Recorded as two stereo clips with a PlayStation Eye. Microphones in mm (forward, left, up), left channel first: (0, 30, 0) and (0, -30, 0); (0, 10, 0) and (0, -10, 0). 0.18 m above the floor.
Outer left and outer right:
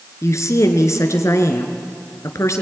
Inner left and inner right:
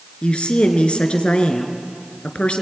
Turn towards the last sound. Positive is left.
turn(degrees=60)  # may be behind; listen again after turning